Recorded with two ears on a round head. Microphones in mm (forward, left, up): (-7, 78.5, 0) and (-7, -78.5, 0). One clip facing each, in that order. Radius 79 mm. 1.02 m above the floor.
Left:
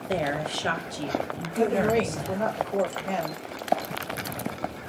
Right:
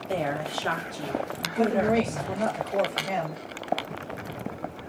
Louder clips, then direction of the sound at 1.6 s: Even; 5° right (ahead or behind).